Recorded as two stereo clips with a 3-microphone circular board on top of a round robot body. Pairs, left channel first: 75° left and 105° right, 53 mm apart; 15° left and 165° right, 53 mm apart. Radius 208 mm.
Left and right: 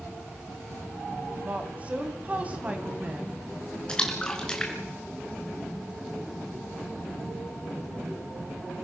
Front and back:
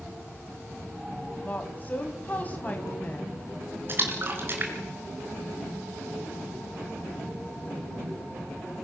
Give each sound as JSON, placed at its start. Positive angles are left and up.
{"t": 1.3, "sound": "a woman speaking", "azimuth_deg": -45, "distance_m": 3.0}
{"t": 3.9, "sound": "a splash", "azimuth_deg": 145, "distance_m": 3.0}